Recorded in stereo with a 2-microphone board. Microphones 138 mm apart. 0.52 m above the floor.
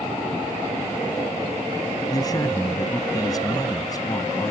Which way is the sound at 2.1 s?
30° left (ahead or behind).